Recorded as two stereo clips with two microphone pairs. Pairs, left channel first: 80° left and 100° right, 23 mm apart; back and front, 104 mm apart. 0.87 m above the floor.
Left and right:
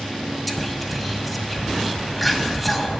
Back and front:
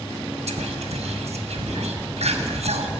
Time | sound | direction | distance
0.5 | whispering | 5° right | 1.1 m